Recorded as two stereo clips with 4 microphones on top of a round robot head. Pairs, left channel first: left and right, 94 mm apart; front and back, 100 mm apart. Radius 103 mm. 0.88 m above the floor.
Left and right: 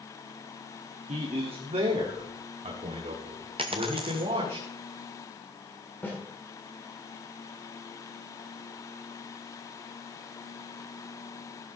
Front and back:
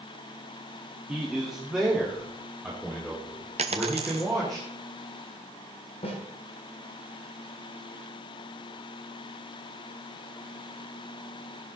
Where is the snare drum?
20° left, 7.5 m.